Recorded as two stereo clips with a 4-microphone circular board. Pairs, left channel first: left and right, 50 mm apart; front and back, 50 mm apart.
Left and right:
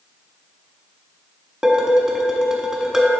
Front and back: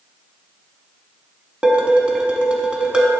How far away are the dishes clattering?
About 0.8 m.